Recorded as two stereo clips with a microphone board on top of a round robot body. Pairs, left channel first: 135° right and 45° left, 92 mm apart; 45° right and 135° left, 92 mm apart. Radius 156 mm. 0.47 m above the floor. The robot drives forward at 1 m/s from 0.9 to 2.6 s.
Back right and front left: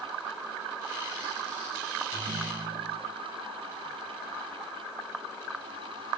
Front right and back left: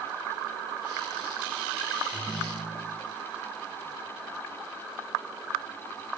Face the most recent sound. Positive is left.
turn(degrees=40)